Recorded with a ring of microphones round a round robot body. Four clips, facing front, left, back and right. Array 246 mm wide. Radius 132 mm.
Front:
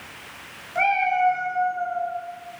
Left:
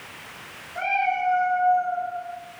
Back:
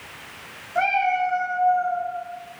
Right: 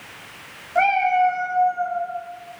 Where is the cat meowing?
80° right, 4 m; by 2.0 s 65° right, 3.5 m.